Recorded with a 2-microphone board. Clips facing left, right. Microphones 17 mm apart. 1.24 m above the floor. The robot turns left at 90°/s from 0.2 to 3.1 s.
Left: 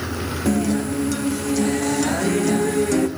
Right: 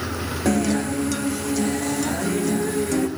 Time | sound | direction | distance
0.5 | a guitar | 25° right (ahead or behind) | 0.6 m